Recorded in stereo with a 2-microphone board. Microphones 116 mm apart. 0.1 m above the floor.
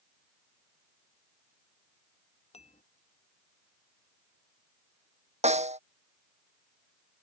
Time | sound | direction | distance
2.5 | dishes clattering | 70° left (ahead or behind) | ?
5.4 | a snare drum | 75° right (ahead or behind) | ?